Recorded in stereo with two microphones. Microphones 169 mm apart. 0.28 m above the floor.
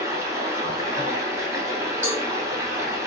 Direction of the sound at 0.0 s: 20° right (ahead or behind).